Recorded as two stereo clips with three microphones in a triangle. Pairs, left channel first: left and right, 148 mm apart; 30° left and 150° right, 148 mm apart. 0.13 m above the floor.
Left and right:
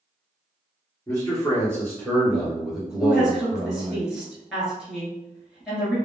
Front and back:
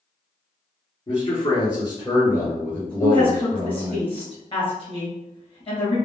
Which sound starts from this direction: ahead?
A woman speaking, at 3.0 s.